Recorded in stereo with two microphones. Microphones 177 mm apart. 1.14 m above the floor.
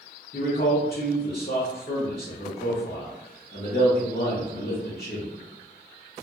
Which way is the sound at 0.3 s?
65° left (ahead or behind).